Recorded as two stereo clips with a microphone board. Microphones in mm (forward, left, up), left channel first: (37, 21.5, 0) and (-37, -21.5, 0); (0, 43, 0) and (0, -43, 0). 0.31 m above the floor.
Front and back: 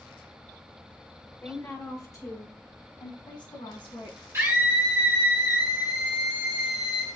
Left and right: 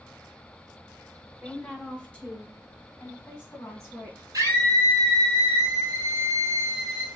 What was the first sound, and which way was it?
A woman speaking, 10° right.